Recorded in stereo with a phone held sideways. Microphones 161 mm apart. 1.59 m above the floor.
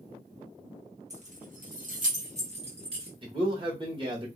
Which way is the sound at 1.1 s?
45° right (ahead or behind).